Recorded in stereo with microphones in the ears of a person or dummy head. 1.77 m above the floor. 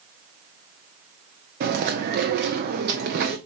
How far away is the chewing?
About 0.7 m.